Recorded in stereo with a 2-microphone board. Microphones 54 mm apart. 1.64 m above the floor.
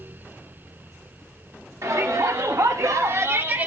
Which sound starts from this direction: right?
A shout, at 1.8 s.